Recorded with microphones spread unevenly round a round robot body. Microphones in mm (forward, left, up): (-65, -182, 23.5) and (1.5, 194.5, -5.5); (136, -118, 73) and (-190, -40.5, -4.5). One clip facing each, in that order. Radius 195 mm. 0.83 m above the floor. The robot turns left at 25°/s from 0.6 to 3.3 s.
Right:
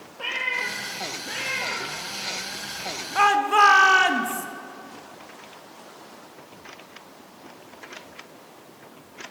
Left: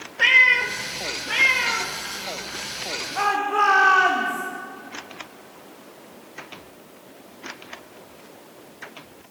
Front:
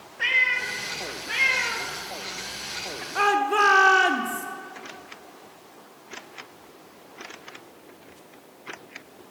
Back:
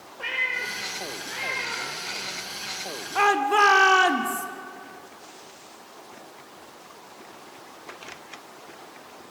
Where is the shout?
120° right, 1.8 m.